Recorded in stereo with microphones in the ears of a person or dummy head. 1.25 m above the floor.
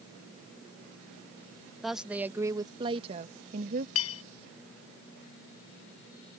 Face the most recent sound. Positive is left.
turn(degrees=80)